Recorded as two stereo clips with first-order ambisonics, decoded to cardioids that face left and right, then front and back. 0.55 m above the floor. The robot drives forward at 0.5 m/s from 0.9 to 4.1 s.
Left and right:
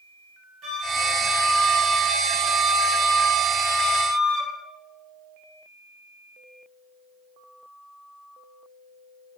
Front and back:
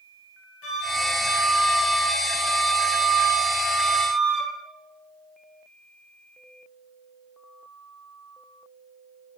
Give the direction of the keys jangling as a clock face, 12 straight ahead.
No keys jangling in this recording.